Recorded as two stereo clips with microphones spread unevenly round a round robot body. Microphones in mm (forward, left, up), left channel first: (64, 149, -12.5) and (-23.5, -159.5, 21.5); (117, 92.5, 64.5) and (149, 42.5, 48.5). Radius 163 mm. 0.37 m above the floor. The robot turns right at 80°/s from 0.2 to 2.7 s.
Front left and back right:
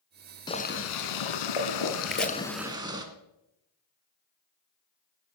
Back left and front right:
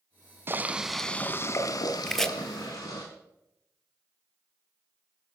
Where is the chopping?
5° right, 1.1 m; by 2.3 s 15° left, 1.1 m.